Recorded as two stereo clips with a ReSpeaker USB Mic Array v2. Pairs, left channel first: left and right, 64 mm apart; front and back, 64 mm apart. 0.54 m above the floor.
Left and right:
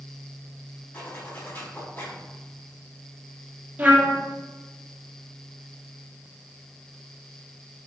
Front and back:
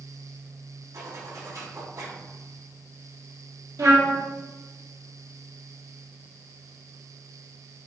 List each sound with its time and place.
0.9 s a zipper: 150° left, 3.5 m
3.8 s a trumpet: 155° right, 2.5 m